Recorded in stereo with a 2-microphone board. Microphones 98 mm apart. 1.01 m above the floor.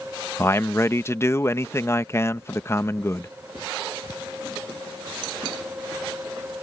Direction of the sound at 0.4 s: 25° left (ahead or behind).